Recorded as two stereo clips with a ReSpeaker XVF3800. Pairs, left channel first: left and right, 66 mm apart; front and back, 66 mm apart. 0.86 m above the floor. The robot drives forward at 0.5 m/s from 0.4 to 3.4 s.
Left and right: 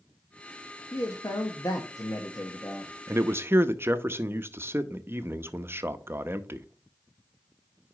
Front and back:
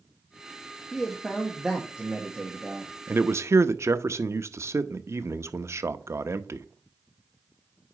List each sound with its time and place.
0.9 s a man speaking: 75° left, 1.2 m; by 2.9 s 130° left, 1.4 m
3.1 s a man speaking: 125° right, 0.5 m; by 6.7 s 140° right, 0.6 m